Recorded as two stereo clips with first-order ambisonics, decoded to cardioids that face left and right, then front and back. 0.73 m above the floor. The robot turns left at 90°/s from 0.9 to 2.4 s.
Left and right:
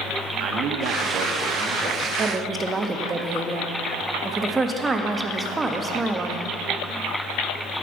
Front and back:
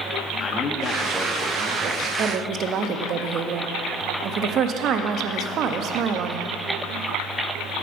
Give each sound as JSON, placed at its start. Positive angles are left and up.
{"t": 0.4, "sound": "a man speaking", "azimuth_deg": -65, "distance_m": 0.7}
{"t": 2.2, "sound": "a woman speaking", "azimuth_deg": -140, "distance_m": 0.5}